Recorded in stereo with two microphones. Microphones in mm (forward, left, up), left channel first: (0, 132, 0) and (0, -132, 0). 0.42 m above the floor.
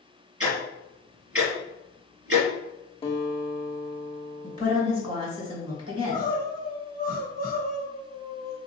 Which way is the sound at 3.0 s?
20° left (ahead or behind).